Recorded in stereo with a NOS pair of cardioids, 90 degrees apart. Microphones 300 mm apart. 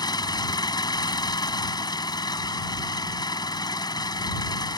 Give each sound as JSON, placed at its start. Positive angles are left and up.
{"t": 0.0, "sound": "an engine running", "azimuth_deg": 15}